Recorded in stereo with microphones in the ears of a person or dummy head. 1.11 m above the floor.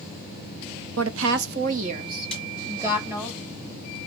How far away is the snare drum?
About 4 m.